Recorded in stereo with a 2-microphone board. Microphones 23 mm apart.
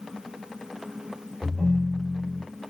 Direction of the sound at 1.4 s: 55° right (ahead or behind).